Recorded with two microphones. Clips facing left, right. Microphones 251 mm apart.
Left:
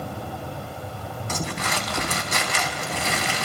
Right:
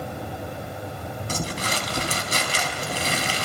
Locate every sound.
1.3 s crumpling: 35° right (ahead or behind), 4 m